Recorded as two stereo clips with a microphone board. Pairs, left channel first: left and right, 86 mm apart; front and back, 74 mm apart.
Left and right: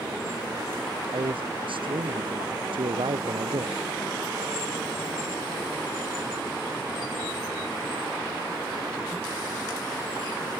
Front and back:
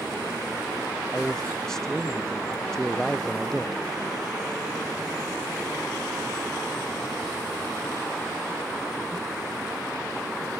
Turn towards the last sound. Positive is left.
turn(degrees=-85)